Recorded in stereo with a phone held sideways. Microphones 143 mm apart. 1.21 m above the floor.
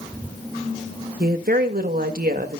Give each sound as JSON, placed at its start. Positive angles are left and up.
{"t": 1.2, "sound": "a woman speaking", "side_deg": -80, "distance_m": 1.7}